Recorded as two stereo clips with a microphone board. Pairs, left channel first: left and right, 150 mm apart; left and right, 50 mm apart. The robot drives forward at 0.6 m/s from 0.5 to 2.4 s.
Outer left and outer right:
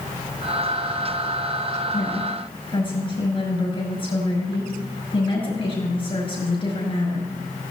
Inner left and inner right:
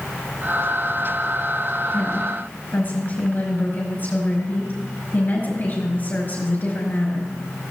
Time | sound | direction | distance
1.9 | a woman speaking | 35° left (ahead or behind) | 5.5 m